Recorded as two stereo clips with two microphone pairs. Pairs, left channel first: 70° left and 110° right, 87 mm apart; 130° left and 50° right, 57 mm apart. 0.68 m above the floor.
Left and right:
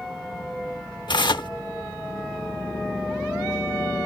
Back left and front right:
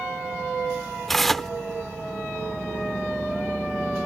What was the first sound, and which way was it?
Tearing paper, 45° left.